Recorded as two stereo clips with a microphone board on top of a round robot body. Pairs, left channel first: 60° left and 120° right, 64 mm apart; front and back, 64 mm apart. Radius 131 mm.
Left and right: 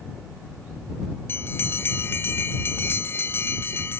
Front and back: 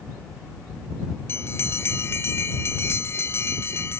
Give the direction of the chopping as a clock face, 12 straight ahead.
I don't hear chopping.